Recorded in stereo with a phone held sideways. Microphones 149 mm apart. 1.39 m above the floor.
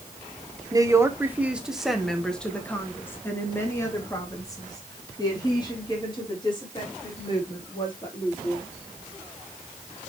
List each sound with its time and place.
0.7 s a woman speaking: 25° right (ahead or behind), 1.3 m; by 8.6 s 35° left (ahead or behind), 5 m